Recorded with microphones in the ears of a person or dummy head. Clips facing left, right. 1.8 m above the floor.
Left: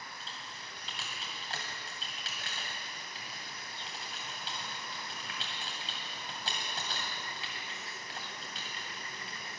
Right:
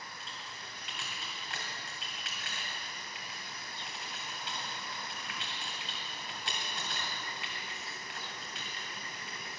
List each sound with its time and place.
0.2 s typing on a keyboard: 35° left (ahead or behind), 2 m